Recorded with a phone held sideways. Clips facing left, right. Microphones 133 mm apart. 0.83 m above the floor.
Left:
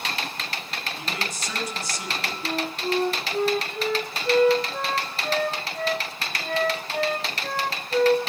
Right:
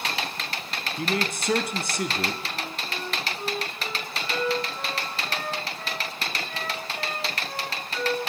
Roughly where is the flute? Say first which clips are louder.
Left 7 dB; left.